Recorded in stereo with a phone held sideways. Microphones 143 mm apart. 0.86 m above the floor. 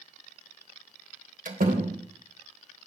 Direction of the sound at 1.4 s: 75° right (ahead or behind).